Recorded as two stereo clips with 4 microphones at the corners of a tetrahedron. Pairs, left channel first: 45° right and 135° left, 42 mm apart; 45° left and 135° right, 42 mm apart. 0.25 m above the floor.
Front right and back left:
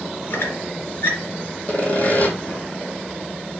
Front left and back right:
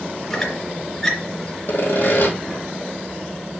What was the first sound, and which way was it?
A squeak, 30° right.